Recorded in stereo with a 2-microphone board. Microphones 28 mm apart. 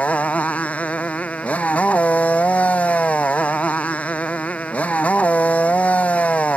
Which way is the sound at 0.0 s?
60° left (ahead or behind).